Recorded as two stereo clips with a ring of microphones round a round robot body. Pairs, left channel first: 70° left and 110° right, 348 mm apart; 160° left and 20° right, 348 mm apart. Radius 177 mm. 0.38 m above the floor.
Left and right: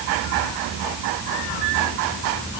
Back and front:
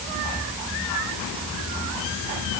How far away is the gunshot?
I don't hear a gunshot.